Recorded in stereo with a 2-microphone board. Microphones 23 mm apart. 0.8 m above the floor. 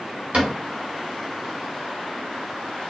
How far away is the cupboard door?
About 1.8 m.